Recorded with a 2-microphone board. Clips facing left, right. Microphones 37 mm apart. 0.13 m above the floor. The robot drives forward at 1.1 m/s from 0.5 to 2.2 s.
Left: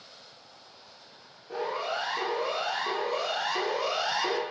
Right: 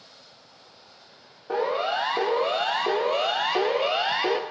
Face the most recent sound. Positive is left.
turn(degrees=-30)  # may be behind; listen again after turning